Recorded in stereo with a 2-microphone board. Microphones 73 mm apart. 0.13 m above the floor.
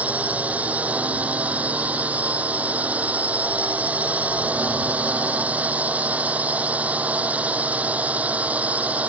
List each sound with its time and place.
0.0 s a drone: 20° right (ahead or behind)